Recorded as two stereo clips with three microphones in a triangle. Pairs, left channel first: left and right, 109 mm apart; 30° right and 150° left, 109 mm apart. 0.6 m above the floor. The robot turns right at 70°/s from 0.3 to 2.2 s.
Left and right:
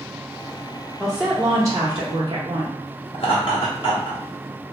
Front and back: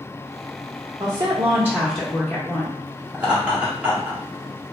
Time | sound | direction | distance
1.0 | a woman speaking | 175° left | 0.8 m
3.1 | laughter | 75° left | 0.8 m